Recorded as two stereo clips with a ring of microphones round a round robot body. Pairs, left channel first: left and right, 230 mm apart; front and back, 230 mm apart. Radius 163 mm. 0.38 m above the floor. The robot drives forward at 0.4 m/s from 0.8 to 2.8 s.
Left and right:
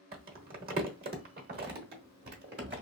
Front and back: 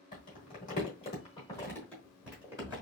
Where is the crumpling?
50° right, 1.1 m; by 2.8 s 115° right, 1.0 m.